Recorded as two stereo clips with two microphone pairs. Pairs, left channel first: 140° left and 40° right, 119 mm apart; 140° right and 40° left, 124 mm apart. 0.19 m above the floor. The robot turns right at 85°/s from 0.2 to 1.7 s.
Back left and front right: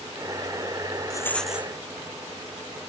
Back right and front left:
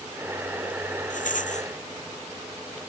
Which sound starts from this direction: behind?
A rattle, at 1.1 s.